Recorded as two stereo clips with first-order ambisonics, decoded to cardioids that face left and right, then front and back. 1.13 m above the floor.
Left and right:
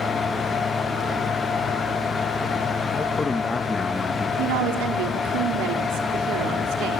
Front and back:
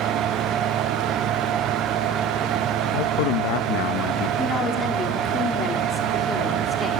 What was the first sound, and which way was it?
A man speaking, 10° left.